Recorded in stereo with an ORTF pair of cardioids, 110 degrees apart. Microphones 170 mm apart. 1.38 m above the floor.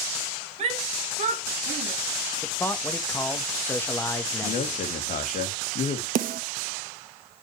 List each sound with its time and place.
0.6 s a shout: 40° right, 2.5 m; by 1.9 s 55° right, 1.9 m
2.4 s a man speaking: 15° left, 1.3 m
4.4 s a man speaking: 50° left, 2 m
6.2 s a snare drum: 55° right, 1.3 m